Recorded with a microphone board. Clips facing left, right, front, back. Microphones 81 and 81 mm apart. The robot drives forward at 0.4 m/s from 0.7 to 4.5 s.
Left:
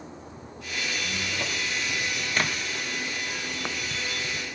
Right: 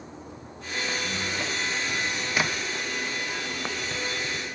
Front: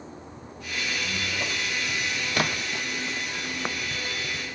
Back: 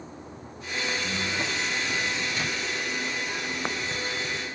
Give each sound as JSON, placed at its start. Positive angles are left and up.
{"t": 1.0, "sound": "a squeak", "azimuth_deg": -165, "distance_m": 8.5}
{"t": 2.4, "sound": "a splash", "azimuth_deg": -5, "distance_m": 0.9}